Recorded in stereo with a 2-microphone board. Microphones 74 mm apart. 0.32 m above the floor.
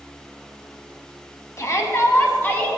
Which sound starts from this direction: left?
A shout, at 1.6 s.